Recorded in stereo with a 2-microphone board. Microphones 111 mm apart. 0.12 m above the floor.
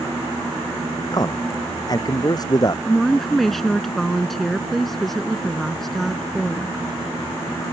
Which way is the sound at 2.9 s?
5° left (ahead or behind).